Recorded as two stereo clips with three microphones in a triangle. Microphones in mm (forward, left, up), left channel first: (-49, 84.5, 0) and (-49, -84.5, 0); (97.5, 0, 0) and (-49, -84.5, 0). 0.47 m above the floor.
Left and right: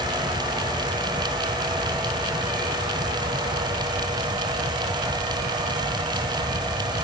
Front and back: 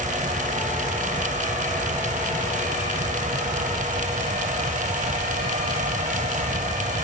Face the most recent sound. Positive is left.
No sound to turn to.